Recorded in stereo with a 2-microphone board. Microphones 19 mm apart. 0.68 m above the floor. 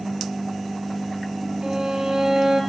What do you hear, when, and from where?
1.6 s a violin: 65° right (ahead or behind), 8 m